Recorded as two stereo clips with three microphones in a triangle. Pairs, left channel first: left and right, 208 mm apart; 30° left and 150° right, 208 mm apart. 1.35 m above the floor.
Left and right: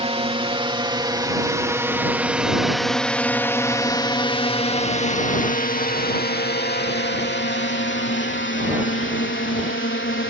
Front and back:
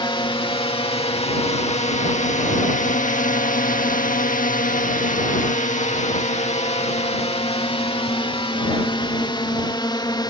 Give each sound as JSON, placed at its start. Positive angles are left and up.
{"t": 0.0, "sound": "a drone", "azimuth_deg": -35}